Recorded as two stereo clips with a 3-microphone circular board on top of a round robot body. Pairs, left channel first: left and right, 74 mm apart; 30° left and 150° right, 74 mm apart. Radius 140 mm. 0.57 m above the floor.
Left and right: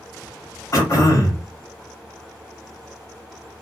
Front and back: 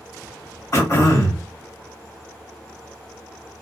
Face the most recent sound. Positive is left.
turn(degrees=70)